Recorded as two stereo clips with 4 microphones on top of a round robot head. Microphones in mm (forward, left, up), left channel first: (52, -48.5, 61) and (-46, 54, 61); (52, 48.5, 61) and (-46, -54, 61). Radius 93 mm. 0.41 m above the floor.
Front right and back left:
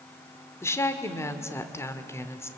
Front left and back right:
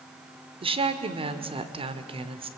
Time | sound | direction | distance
0.6 | a woman speaking | 110° right | 1.4 m